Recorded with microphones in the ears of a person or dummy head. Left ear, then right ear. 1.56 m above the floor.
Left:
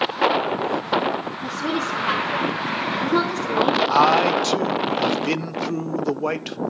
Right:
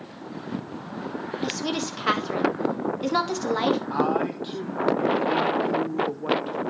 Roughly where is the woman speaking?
Right.